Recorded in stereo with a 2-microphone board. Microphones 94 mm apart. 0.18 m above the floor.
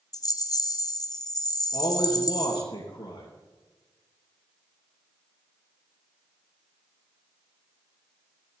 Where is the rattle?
45° left (ahead or behind), 0.9 m.